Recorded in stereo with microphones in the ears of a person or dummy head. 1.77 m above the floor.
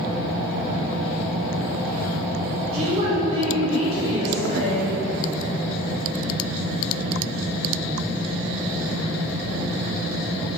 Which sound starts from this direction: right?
A woman speaking, at 2.7 s.